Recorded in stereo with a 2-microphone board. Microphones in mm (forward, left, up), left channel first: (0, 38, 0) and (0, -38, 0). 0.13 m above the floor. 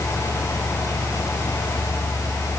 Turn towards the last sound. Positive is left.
No sound to turn to.